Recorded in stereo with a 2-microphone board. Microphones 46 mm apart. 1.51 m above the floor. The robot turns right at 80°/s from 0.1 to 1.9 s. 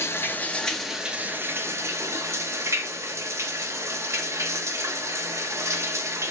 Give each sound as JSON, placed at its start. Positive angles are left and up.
{"t": 0.0, "sound": "running water", "azimuth_deg": 125, "distance_m": 0.8}